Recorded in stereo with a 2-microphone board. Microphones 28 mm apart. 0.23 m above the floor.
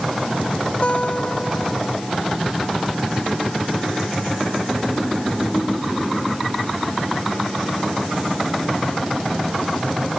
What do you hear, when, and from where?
0.8 s a guitar: 45° left (ahead or behind)